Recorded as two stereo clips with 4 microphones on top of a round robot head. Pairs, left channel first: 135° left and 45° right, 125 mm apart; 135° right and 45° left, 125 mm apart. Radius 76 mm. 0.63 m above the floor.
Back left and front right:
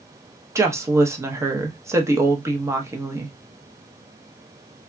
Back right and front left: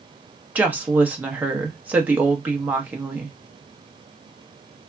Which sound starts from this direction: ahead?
A woman speaking, at 0.6 s.